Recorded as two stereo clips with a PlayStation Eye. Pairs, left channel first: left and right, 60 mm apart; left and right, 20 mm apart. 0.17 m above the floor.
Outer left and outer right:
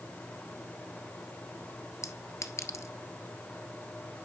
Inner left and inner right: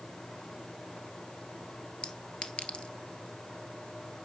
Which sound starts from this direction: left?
A clink, at 2.0 s.